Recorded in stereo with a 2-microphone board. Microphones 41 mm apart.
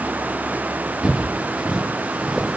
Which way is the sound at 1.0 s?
25° right (ahead or behind).